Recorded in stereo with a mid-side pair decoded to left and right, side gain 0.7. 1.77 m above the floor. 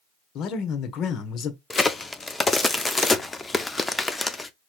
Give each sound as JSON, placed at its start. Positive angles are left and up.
{"t": 0.3, "sound": "a man speaking", "azimuth_deg": 50, "distance_m": 1.0}
{"t": 1.7, "sound": "a crack", "azimuth_deg": 15, "distance_m": 0.5}